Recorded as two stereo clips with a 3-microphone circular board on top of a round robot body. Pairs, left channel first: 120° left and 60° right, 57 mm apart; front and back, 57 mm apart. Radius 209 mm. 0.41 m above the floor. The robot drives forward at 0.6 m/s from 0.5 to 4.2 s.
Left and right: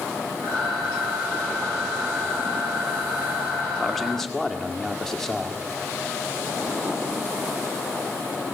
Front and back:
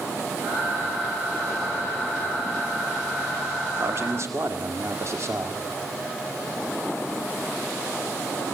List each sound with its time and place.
3.8 s a man speaking: 155° right, 1.8 m; by 5.7 s 160° right, 2.0 m